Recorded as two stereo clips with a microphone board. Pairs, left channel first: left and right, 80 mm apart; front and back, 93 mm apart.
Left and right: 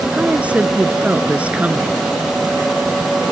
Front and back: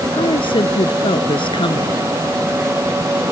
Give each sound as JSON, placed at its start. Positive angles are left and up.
{"t": 0.1, "sound": "a woman speaking", "azimuth_deg": -15}